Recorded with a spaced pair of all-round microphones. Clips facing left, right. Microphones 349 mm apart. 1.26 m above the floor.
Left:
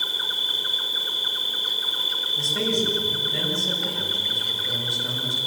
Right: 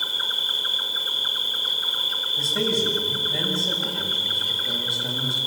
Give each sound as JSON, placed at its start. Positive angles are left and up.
{"t": 0.0, "sound": "an insect", "side_deg": 30, "distance_m": 1.5}
{"t": 2.4, "sound": "a man speaking", "side_deg": 10, "distance_m": 7.0}